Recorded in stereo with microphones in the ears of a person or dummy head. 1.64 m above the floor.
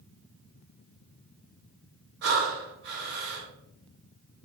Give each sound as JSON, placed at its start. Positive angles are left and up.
{"t": 2.2, "sound": "breathing", "side_deg": -55, "distance_m": 2.5}